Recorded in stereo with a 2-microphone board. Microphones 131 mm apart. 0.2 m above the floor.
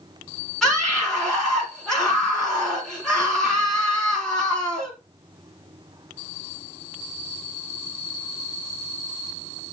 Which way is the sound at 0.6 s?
Centre (ahead or behind).